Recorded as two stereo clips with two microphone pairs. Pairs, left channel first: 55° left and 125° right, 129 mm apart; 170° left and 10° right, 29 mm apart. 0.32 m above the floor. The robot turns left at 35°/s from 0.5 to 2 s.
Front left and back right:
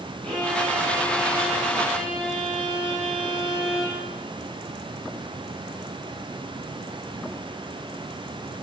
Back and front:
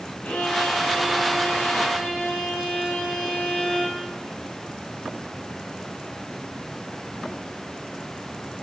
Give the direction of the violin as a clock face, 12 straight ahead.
7 o'clock.